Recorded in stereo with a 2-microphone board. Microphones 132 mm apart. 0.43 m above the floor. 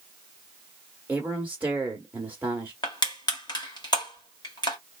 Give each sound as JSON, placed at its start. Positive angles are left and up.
{"t": 1.1, "sound": "a man speaking", "side_deg": -15, "distance_m": 1.0}
{"t": 2.8, "sound": "crushing", "side_deg": 35, "distance_m": 1.6}